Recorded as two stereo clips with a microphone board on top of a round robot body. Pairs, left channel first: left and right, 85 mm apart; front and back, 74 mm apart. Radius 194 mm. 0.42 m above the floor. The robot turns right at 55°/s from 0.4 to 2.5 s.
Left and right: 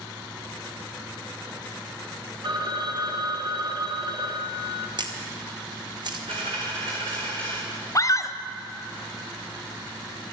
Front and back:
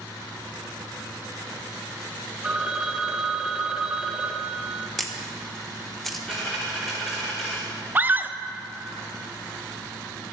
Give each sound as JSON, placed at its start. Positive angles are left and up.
{"t": 2.4, "sound": "a phone ringing", "azimuth_deg": -100, "distance_m": 1.3}
{"t": 5.0, "sound": "a camera shutter", "azimuth_deg": -90, "distance_m": 1.7}
{"t": 6.3, "sound": "a dropped coin", "azimuth_deg": -90, "distance_m": 3.5}
{"t": 8.0, "sound": "a scream", "azimuth_deg": 125, "distance_m": 1.1}